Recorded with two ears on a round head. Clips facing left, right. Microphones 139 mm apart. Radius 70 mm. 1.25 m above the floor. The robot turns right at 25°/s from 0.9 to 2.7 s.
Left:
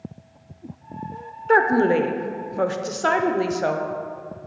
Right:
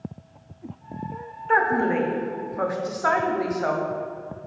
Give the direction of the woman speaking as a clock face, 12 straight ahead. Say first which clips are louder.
Left 4 dB; 8 o'clock.